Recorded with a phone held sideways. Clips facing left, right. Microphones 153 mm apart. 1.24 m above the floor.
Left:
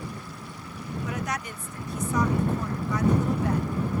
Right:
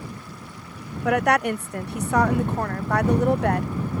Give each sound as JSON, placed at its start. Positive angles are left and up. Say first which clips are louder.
{"t": 1.1, "sound": "a woman speaking", "louder": "right 14 dB", "side_deg": -65}